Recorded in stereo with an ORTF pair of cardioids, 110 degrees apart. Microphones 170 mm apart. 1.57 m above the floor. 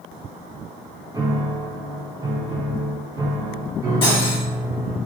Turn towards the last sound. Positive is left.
turn(degrees=30)